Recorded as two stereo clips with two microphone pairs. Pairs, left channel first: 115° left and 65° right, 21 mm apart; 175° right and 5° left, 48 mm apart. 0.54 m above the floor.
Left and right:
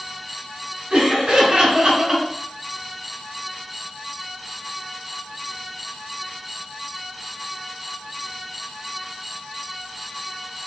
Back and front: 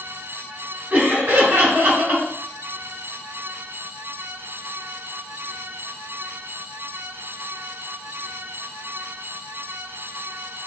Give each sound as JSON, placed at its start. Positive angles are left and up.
{"t": 0.9, "sound": "laughter", "azimuth_deg": -35, "distance_m": 1.0}